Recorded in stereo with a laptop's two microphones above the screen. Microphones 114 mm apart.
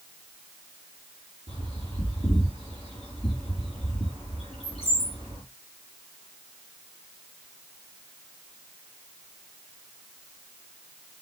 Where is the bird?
50° left (ahead or behind), 4.5 m.